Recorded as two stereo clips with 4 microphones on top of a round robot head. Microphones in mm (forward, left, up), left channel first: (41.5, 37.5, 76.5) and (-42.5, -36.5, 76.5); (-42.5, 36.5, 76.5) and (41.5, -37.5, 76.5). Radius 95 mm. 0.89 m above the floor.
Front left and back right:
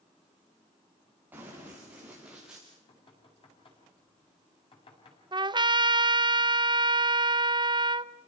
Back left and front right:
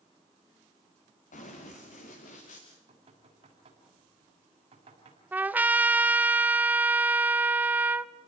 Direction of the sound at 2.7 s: Straight ahead.